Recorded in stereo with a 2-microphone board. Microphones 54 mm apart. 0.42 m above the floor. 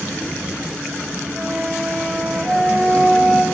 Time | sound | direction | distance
1.4 | a flute | 5° left (ahead or behind) | 3 m